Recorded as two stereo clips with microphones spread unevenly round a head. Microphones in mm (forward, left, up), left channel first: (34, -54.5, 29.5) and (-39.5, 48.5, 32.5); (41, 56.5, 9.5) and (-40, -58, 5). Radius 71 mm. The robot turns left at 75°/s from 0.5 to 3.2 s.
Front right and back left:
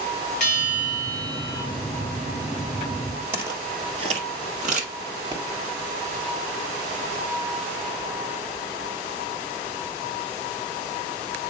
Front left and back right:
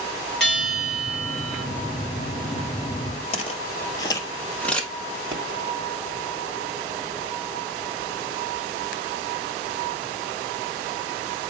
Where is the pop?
Straight behind, 1.5 m.